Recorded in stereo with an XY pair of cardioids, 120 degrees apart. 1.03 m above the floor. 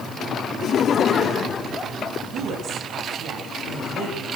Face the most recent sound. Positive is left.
turn(degrees=-60)